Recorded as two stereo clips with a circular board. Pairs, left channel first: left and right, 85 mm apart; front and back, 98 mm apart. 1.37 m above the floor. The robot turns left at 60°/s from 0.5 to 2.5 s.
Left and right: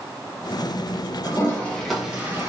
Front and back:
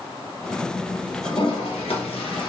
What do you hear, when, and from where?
1.2 s a toilet flushing: 45° left, 0.8 m; by 2.5 s 35° right, 0.8 m